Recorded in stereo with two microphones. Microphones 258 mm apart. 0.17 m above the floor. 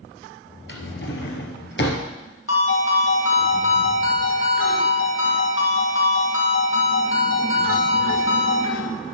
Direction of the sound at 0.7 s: 45° left (ahead or behind).